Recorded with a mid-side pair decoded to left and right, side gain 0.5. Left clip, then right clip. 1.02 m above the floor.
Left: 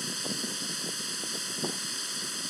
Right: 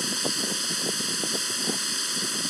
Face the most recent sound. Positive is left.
turn(degrees=-35)